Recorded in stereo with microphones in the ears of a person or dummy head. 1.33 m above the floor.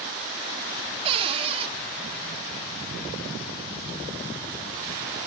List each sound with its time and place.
1.1 s a cupboard door: 30° right (ahead or behind), 0.6 m